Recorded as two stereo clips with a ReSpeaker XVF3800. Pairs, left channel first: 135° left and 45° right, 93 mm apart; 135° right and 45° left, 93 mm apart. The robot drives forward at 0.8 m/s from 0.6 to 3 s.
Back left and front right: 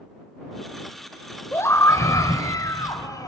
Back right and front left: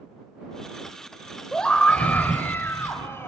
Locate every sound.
1.5 s a scream: 145° left, 1.4 m; by 3.3 s 170° left, 2 m